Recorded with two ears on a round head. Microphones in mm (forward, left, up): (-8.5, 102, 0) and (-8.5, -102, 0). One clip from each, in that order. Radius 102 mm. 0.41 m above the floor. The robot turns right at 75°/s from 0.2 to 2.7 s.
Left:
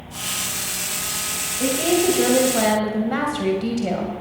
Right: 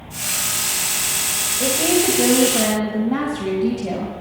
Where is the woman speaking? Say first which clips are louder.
Even; 15° right, 2.5 m; by 4.1 s 70° left, 2.5 m.